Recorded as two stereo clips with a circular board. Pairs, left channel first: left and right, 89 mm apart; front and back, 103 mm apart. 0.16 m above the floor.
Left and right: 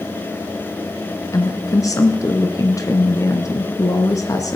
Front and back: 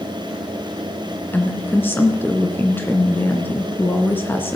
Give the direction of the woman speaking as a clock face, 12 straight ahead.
10 o'clock.